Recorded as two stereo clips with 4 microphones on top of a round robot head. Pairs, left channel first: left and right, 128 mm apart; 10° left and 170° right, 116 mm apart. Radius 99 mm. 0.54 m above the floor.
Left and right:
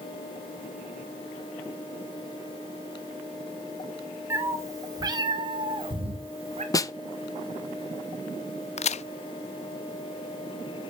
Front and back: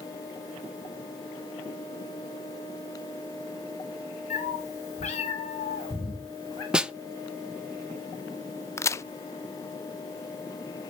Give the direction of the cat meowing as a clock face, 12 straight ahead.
1 o'clock.